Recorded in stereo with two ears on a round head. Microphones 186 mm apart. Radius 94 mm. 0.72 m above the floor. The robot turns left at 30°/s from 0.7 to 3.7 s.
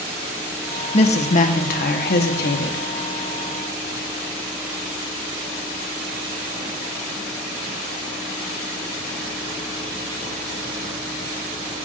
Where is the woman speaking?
140° left, 1.1 m; by 2.8 s 85° left, 1.1 m.